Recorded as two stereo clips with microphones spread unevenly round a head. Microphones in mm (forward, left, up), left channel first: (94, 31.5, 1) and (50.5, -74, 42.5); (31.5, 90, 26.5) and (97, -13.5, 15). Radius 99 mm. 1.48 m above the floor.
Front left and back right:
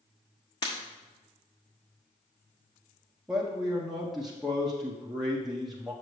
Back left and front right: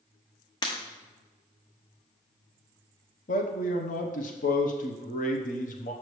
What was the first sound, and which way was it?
Breaking glass, 140° left.